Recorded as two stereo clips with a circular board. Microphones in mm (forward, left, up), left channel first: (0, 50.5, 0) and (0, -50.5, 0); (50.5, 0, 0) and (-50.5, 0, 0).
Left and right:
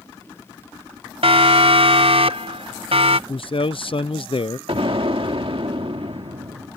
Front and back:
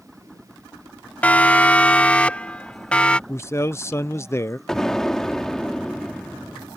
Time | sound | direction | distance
1.2 | a siren | 75° right | ?
3.3 | a man speaking | 65° left | ?
4.7 | an explosion | 85° right | ?